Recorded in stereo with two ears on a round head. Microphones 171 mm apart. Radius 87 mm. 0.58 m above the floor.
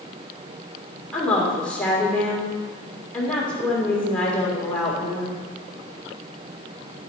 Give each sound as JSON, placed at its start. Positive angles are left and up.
{"t": 1.1, "sound": "a woman speaking", "side_deg": 5, "distance_m": 1.8}